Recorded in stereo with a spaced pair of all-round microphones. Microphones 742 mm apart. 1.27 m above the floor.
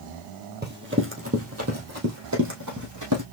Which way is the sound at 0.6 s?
15° right (ahead or behind).